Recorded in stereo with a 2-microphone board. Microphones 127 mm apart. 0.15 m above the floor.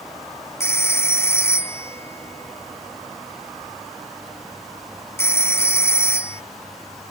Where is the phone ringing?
20° left (ahead or behind).